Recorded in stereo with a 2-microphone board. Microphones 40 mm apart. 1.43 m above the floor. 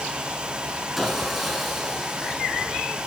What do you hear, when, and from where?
1.0 s sawing: 5° right (ahead or behind), 5 m